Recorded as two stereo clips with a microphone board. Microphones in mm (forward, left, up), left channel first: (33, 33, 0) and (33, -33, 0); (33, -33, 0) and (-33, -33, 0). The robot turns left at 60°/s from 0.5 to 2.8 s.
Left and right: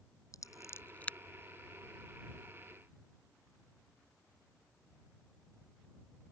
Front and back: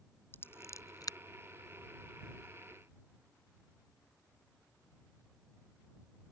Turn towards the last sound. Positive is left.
turn(degrees=-80)